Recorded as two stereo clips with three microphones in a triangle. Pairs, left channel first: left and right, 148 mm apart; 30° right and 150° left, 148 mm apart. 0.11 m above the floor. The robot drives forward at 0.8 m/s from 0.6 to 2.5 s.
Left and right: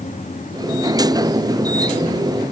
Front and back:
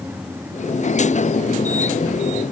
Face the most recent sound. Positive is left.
No sound to turn to.